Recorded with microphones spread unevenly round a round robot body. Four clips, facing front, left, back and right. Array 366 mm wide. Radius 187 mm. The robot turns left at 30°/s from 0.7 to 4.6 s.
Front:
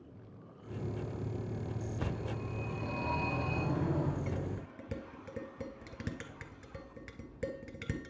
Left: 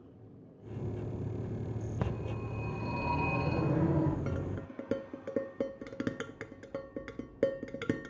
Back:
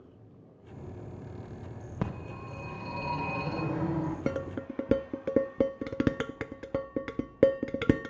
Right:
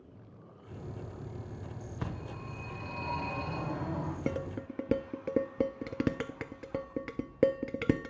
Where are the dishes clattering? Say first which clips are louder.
Right 3 dB, back 7 dB; 140° right, 0.5 m; by 8.1 s 150° right, 0.5 m.